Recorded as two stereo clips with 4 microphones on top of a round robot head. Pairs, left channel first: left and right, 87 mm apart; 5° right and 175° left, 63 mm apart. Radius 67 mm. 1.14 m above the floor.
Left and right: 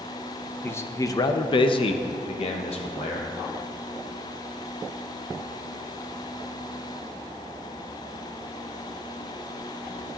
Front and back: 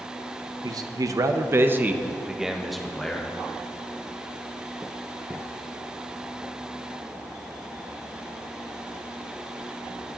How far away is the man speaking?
About 0.9 m.